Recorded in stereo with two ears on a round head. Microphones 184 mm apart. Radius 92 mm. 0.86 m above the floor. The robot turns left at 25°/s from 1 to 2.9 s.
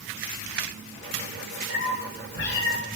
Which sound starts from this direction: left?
A cat meowing, at 1.7 s.